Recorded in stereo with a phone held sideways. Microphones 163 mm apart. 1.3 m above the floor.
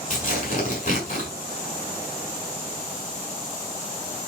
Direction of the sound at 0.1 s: 55° left (ahead or behind).